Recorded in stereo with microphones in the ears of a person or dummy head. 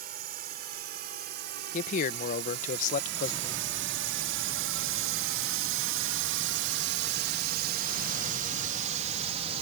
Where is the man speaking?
50° left (ahead or behind).